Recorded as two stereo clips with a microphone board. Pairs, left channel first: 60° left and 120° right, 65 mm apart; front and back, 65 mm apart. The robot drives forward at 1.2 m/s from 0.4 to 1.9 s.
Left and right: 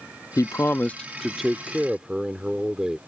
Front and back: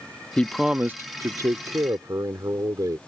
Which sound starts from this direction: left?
A man speaking, at 0.4 s.